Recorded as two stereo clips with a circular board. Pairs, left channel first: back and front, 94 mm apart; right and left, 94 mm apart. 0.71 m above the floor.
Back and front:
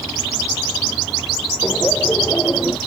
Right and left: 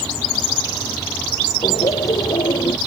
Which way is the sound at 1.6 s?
110° right.